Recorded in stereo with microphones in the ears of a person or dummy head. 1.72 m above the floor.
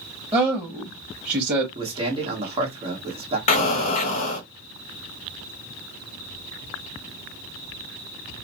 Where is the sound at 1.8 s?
35° right (ahead or behind), 1.3 m.